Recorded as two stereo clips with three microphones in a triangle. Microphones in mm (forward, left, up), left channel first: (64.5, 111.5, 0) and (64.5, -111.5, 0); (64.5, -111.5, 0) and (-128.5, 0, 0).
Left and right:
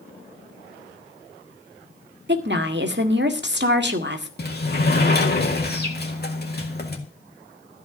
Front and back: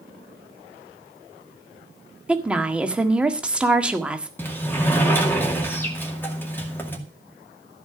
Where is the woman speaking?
125° right, 1.6 m.